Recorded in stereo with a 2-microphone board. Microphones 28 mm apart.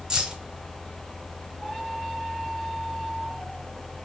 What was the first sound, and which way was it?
Keys jangling, 30° right (ahead or behind).